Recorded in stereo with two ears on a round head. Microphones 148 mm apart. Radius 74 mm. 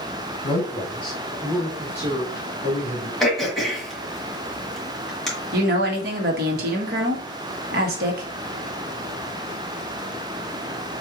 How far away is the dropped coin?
No dropped coin in this recording.